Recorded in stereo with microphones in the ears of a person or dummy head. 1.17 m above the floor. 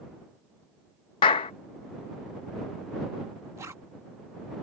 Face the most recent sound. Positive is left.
turn(degrees=-10)  # may be behind; listen again after turning